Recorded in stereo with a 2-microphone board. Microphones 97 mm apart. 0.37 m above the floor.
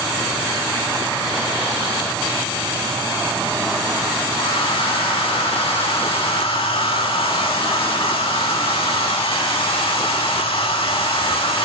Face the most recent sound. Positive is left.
turn(degrees=70)  # may be behind; listen again after turning